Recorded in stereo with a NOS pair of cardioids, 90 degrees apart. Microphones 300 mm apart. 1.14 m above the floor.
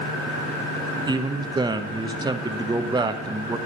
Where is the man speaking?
15° right, 0.8 m.